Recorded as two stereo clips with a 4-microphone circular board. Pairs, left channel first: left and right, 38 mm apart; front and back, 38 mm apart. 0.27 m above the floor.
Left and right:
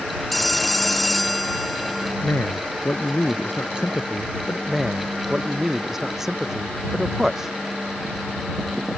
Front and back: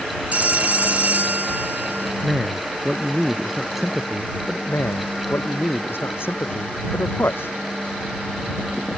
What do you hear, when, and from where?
0.3 s a phone ringing: 175° left
2.2 s a man speaking: 100° left
4.7 s a man speaking: 10° right